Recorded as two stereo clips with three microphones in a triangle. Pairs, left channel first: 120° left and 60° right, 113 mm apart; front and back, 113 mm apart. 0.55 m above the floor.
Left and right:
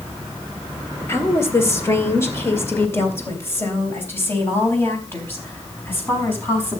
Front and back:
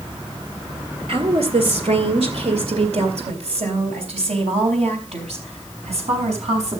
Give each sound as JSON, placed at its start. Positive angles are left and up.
{"t": 1.1, "sound": "a woman speaking", "azimuth_deg": 180, "distance_m": 2.0}